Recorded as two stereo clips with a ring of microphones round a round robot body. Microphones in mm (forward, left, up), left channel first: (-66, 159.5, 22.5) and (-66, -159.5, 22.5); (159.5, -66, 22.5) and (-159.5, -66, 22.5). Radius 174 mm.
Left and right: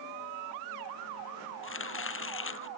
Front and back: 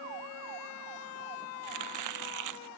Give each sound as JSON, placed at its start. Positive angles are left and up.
{"t": 1.6, "sound": "chopping", "azimuth_deg": 140}